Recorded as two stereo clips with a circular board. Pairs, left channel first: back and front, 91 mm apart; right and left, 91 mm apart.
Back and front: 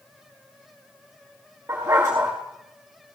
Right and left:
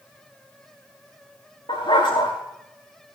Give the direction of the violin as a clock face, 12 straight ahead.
I don't hear a violin.